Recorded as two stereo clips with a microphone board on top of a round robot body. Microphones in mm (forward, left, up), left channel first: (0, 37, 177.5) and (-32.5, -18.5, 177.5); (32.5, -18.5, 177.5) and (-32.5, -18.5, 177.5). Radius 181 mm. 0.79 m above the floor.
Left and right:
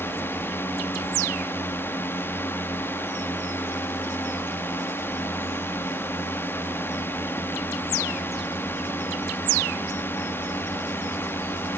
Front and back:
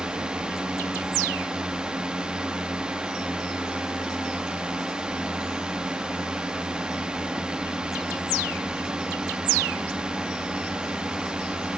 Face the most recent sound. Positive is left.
turn(degrees=105)